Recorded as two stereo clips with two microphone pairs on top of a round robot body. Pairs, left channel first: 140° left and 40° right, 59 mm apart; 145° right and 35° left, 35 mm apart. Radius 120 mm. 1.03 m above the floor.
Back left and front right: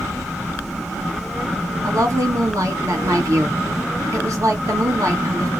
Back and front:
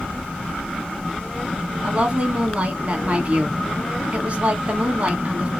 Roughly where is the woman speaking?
Ahead.